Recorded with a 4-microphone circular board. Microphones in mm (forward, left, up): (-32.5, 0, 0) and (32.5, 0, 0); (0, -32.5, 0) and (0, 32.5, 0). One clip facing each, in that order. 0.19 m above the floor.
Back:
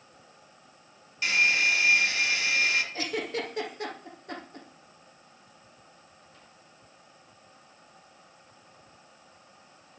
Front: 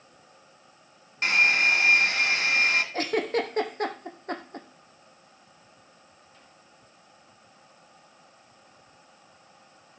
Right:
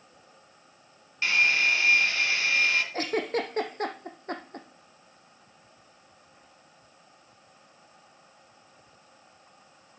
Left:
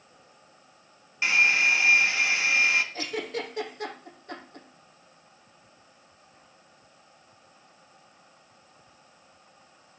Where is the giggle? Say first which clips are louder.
Front 6 dB, right 4 dB; 45° right, 2 m.